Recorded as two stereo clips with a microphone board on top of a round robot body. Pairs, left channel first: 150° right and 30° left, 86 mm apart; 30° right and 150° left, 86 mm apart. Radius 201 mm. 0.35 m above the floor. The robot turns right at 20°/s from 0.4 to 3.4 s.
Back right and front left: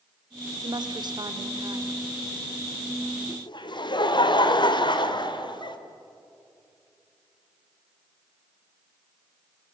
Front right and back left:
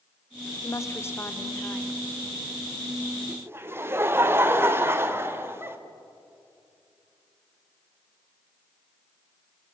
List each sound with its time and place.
0.6 s a woman speaking: 15° left, 1.9 m; by 2.0 s 45° left, 1.9 m
3.3 s laughter: 150° right, 2.5 m